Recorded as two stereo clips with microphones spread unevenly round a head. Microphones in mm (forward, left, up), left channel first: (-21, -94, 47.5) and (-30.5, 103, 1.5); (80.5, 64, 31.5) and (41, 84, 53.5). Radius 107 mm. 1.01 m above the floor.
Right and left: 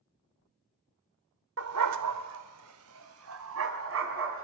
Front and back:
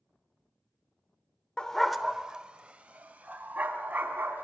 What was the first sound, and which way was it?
A dog barking, 60° left.